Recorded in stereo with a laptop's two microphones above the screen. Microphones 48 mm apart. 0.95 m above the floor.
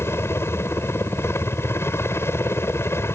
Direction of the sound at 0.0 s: 65° left (ahead or behind).